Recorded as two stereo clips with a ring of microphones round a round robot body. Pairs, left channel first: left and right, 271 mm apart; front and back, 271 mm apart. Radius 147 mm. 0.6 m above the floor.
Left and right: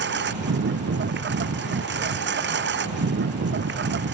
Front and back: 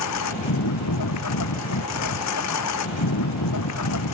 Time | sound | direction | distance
0.0 | a lawn mower | 40° right | ?